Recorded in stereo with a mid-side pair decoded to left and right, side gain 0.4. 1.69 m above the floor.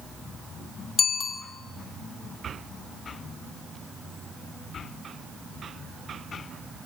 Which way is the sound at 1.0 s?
55° left.